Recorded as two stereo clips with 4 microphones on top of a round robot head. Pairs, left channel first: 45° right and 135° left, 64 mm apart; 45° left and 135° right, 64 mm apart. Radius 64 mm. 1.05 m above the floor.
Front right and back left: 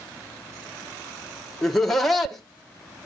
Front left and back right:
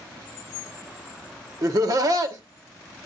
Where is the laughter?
130° right, 1.0 m.